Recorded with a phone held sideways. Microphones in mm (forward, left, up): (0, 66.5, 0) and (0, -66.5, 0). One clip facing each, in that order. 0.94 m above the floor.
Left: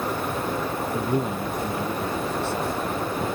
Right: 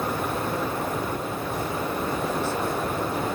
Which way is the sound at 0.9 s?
70° left (ahead or behind).